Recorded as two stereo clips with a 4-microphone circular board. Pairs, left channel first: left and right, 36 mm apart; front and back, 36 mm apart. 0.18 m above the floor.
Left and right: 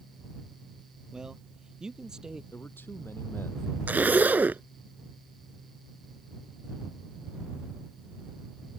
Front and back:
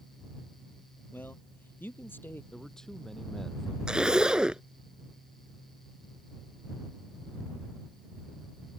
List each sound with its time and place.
1.1 s a man speaking: 20° right
2.5 s a man speaking: 75° left
3.9 s a zipper: 115° right